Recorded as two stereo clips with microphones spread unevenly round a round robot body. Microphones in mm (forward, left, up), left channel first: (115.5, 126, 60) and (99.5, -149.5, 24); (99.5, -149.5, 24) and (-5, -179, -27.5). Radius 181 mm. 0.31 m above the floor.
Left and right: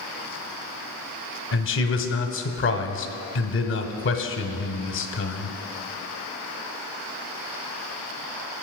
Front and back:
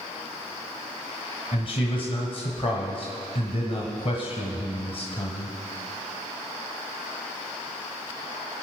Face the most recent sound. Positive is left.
turn(degrees=75)